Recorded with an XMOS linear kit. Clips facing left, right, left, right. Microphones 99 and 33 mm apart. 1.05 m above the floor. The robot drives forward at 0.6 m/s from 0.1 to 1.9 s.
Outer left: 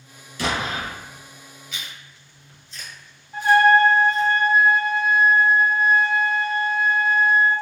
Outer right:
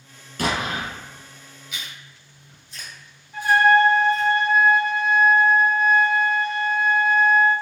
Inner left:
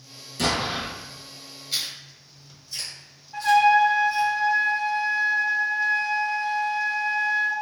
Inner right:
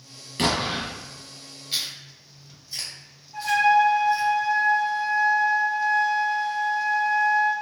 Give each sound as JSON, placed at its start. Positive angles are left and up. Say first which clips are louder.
{"t": 0.4, "sound": "an explosion", "louder": "outer right 1 dB, inner right 1 dB", "side_deg": -50, "distance_m": 1.1}
{"t": 1.7, "sound": "chewing", "louder": "outer right 1 dB, even", "side_deg": -15, "distance_m": 1.5}
{"t": 3.3, "sound": "a trumpet", "louder": "outer left 1 dB, inner left 2 dB", "side_deg": 35, "distance_m": 0.5}